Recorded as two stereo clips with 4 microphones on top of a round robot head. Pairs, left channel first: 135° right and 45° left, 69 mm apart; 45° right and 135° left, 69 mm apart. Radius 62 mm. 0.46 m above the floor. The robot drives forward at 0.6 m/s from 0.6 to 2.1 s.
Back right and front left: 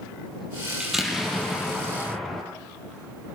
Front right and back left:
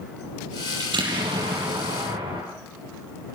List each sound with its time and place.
0.8 s an explosion: 130° left, 7 m; by 2.4 s 135° left, 7.5 m